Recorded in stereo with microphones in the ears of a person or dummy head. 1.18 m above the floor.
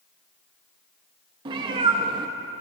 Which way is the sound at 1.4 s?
25° right (ahead or behind).